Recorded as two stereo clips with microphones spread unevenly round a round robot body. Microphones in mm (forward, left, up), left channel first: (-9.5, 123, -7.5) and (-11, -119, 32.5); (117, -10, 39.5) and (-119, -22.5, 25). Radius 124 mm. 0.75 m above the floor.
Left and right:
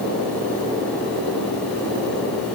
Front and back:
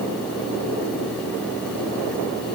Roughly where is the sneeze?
No sneeze in this recording.